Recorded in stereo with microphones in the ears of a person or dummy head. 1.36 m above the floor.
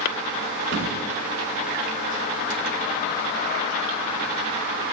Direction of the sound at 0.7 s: 25° left (ahead or behind).